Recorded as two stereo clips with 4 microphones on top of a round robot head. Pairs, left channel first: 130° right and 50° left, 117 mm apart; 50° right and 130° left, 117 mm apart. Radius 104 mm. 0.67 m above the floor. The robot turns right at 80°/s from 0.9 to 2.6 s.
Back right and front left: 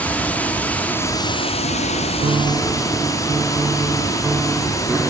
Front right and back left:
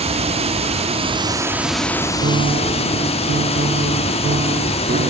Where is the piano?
100° left, 0.6 m; by 5.1 s 130° left, 0.6 m.